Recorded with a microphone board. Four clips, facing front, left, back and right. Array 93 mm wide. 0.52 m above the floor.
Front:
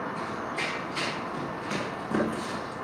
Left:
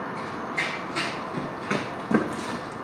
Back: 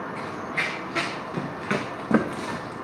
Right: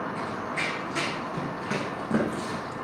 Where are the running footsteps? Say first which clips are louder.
Even, back 1 dB; 155° right, 2 m; by 2.7 s 165° left, 2 m.